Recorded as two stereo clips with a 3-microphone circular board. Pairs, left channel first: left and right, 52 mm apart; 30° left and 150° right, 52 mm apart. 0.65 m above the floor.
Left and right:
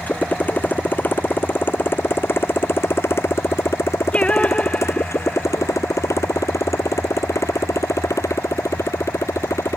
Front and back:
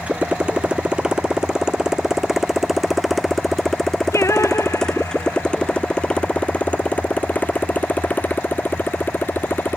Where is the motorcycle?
145° left; by 9.8 s 80° left.